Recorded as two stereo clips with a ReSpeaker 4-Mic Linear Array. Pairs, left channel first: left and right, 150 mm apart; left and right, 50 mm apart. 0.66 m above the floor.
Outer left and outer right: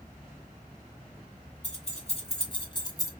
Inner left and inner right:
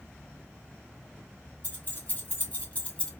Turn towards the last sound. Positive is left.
turn(degrees=20)  # may be behind; listen again after turning